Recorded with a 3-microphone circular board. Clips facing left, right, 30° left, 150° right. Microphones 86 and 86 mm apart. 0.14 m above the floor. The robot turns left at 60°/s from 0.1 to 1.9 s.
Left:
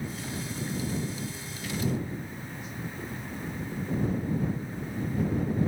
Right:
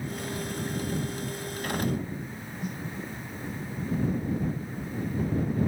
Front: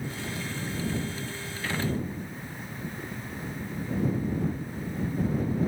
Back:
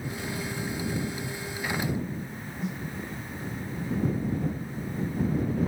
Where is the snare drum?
130° right.